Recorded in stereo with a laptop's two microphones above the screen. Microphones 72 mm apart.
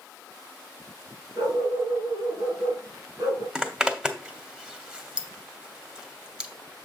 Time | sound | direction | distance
1.4 | a dog barking | 55° right (ahead or behind) | 5.5 m
3.5 | a zipper | 10° right (ahead or behind) | 1.5 m